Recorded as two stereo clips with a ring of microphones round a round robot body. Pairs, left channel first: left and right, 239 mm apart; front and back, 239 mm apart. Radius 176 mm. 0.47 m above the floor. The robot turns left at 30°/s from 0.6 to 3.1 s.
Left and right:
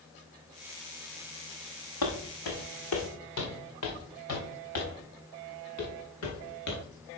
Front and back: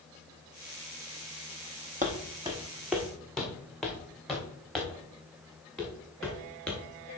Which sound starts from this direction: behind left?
Footsteps, at 2.0 s.